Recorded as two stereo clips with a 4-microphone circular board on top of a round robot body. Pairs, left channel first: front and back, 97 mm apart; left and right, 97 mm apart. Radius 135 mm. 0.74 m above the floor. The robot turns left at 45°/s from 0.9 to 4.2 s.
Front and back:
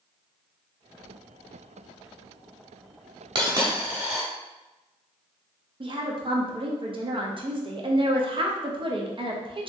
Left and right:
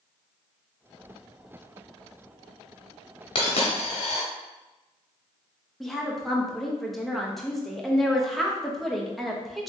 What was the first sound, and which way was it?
A dropped coin, 130° left.